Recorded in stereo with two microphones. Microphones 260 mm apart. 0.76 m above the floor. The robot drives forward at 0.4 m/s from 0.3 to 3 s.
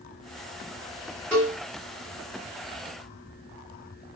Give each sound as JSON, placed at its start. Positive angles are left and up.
{"t": 1.3, "sound": "a cowbell", "side_deg": 10, "distance_m": 1.4}